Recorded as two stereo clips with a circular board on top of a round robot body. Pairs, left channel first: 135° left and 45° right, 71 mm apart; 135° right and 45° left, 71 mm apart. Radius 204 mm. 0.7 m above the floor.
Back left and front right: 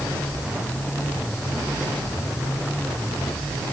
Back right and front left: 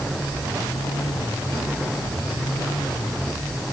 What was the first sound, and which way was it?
Only background noise.